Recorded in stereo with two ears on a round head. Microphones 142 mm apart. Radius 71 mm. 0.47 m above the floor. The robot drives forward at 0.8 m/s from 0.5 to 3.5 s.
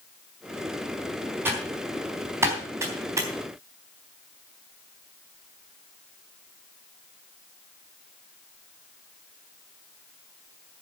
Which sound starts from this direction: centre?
Typing on a keyboard, at 1.4 s.